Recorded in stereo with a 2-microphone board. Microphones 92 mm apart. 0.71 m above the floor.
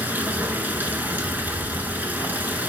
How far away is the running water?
About 1.2 m.